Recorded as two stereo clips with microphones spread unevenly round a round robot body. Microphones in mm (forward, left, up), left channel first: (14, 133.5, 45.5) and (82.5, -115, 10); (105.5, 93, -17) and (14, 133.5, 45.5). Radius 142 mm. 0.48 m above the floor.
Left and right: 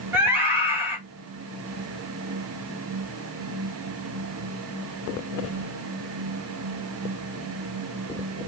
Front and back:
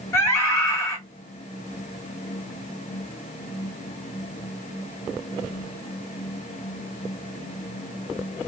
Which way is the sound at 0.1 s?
Straight ahead.